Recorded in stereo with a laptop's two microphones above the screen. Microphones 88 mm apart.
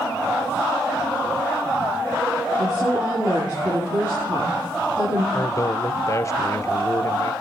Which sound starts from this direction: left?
A man speaking, at 5.3 s.